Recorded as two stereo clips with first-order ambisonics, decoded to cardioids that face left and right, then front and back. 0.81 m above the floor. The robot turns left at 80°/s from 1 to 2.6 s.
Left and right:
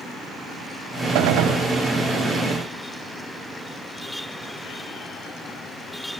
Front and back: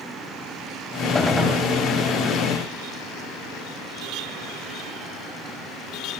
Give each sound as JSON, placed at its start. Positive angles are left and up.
{"t": 1.1, "sound": "a gunshot", "azimuth_deg": -75, "distance_m": 1.2}